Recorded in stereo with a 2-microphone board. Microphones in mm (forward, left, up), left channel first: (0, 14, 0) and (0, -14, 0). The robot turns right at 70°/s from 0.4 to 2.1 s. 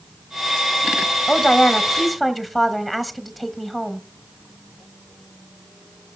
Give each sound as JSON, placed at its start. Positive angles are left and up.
{"t": 1.3, "sound": "a woman speaking", "side_deg": 25, "distance_m": 1.2}